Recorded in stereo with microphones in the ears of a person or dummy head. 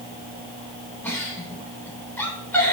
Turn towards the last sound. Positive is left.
turn(degrees=10)  # may be behind; listen again after turning